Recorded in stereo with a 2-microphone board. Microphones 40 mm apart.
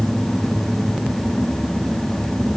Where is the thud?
I don't hear a thud.